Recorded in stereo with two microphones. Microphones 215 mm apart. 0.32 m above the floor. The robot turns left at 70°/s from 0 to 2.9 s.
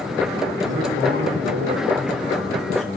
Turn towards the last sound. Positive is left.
turn(degrees=140)